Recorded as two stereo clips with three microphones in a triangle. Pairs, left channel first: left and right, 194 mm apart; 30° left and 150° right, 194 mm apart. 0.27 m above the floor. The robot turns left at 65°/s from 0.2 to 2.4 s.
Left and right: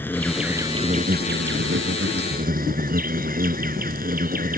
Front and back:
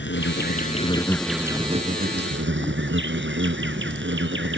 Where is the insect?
10° left; by 4.6 s 135° right.